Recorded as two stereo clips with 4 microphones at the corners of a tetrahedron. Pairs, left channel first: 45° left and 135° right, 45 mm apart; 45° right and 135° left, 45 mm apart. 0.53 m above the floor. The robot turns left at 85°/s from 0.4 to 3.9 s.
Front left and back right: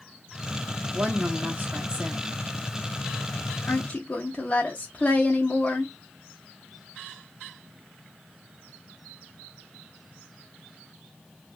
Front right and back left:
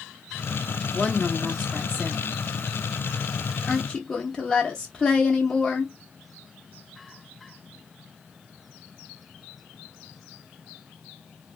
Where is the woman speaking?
95° right, 0.8 m; by 5.9 s 15° left, 0.8 m.